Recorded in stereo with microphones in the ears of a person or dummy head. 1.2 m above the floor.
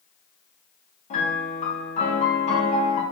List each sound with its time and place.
1.1 s a piano: 35° left (ahead or behind), 0.9 m